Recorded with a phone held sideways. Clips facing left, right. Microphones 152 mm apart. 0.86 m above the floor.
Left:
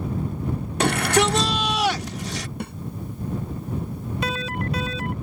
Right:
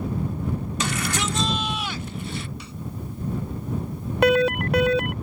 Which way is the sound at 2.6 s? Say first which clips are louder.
Left 8 dB; 55° left (ahead or behind).